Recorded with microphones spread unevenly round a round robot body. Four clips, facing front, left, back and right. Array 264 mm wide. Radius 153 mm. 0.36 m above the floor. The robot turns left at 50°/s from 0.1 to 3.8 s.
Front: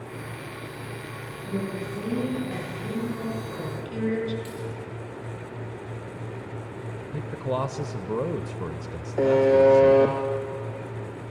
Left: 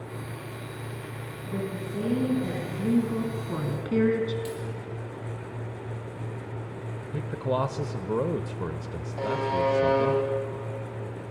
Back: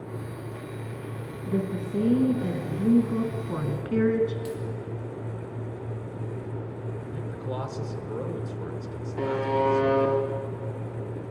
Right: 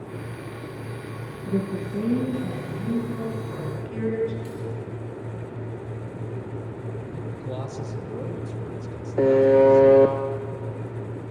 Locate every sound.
1.5 s a woman speaking: 120° right, 4.5 m; by 4.3 s 120° left, 4.5 m
4.5 s a dropped coin: 140° left, 5.5 m
7.1 s a man speaking: 60° left, 1.1 m
9.2 s a buzzer: 80° right, 1.5 m